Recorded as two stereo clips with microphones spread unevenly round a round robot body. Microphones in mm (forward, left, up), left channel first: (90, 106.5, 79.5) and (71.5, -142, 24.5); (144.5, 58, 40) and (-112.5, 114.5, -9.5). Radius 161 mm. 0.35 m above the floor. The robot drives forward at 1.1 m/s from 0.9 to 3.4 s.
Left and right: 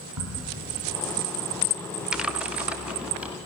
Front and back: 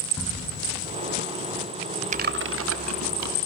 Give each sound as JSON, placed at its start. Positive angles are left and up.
{"t": 0.2, "sound": "a crack", "azimuth_deg": -95, "distance_m": 6.0}
{"t": 2.1, "sound": "typing on a keyboard", "azimuth_deg": -165, "distance_m": 0.7}